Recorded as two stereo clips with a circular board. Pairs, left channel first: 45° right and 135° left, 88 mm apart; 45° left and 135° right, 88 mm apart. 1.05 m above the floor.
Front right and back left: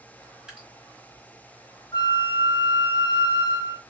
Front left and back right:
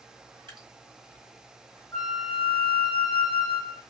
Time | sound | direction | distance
0.5 | dripping | 140° right | 1.5 m
1.9 | a flute | 15° right | 0.9 m